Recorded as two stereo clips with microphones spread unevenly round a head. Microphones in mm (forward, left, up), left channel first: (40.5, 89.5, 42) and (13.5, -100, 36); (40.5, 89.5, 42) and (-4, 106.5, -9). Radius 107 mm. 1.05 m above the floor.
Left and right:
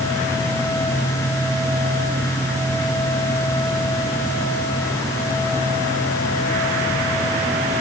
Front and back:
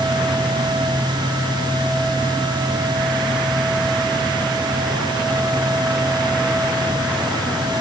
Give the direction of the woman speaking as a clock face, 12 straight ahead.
No woman speaking in this recording.